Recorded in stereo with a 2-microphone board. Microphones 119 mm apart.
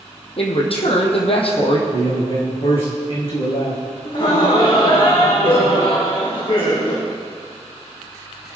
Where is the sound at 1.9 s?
55° left (ahead or behind), 6.5 m.